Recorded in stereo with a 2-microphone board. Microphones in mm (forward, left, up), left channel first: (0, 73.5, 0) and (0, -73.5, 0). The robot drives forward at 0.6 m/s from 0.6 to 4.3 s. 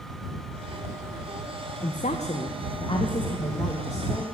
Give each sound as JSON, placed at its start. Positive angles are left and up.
{"t": 1.8, "sound": "a woman speaking", "side_deg": 60, "distance_m": 0.8}